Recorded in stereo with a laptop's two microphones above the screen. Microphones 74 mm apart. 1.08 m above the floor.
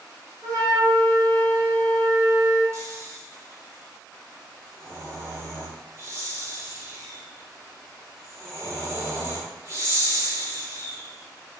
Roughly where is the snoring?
Right.